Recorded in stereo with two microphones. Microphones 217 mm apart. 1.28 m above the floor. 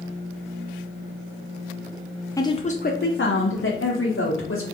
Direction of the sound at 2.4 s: 15° left (ahead or behind).